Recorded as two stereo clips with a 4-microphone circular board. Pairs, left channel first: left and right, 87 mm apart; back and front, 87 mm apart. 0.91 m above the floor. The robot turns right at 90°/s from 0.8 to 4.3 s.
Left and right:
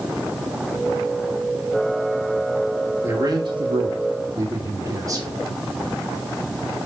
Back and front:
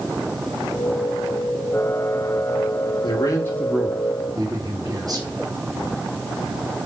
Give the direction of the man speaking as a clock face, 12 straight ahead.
5 o'clock.